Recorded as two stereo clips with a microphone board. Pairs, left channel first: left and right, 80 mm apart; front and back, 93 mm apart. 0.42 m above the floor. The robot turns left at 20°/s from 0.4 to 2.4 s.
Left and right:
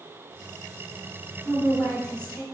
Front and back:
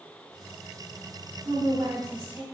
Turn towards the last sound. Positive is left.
turn(degrees=145)